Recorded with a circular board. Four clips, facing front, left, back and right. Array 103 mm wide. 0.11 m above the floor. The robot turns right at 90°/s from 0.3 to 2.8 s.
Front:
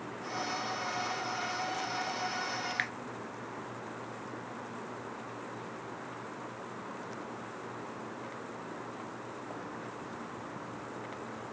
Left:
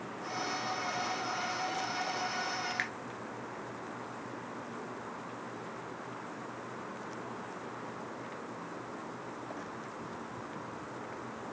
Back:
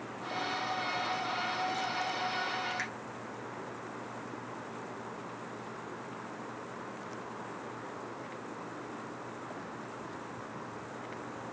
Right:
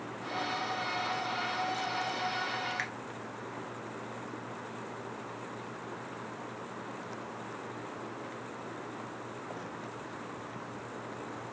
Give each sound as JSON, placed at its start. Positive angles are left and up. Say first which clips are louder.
{"t": 2.8, "sound": "a finger snap", "louder": "even, front 2 dB", "azimuth_deg": 15, "distance_m": 1.0}